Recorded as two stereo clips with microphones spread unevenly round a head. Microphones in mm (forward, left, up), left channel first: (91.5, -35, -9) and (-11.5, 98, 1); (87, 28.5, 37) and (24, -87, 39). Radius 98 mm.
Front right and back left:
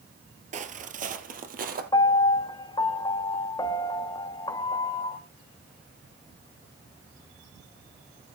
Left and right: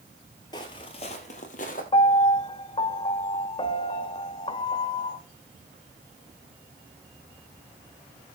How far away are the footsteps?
About 1.5 m.